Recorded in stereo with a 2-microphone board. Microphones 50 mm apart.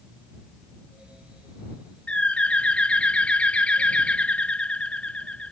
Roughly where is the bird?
Left.